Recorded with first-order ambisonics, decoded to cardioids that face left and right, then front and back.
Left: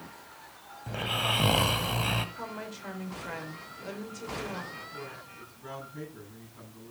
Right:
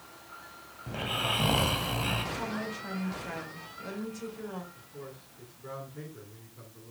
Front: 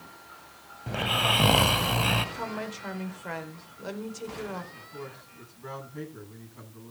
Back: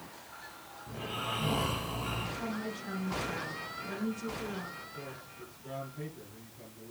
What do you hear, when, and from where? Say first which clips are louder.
0.9 s snoring: left 2 dB, front 12 dB; 10° left, 1.1 m
2.4 s a woman speaking: right 4 dB, front 4 dB; 10° left, 4 m
4.7 s a man speaking: left 5 dB, front 2 dB; 25° left, 8.5 m